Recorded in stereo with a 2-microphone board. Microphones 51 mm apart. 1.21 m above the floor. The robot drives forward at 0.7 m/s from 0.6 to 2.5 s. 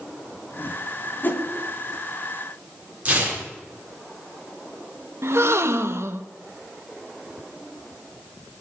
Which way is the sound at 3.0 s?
25° right (ahead or behind).